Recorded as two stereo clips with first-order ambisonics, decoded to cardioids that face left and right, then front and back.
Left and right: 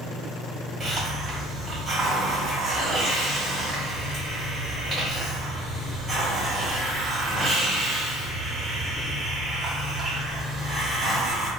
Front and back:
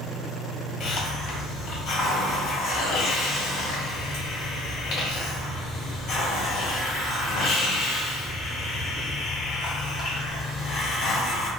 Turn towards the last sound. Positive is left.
turn(degrees=-15)